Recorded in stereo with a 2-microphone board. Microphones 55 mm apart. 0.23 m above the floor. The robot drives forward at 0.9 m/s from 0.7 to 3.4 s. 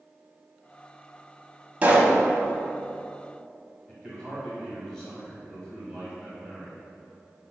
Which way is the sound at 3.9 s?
10° left (ahead or behind).